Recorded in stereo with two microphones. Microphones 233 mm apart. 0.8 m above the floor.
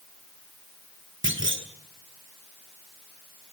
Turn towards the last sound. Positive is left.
turn(degrees=-55)  # may be behind; listen again after turning